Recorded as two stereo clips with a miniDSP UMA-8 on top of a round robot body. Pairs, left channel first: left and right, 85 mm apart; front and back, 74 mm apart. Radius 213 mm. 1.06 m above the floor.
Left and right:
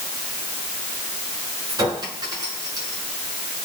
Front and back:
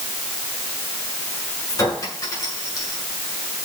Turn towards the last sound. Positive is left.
turn(degrees=-45)